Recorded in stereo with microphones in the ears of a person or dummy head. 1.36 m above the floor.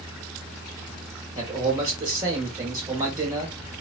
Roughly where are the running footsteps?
No running footsteps in this recording.